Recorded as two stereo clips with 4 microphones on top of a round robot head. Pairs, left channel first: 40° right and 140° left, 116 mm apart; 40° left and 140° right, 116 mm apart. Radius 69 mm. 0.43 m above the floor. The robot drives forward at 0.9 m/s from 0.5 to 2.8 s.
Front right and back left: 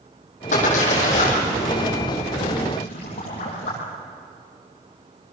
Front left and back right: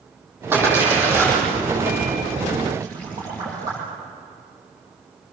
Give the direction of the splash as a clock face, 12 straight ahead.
2 o'clock.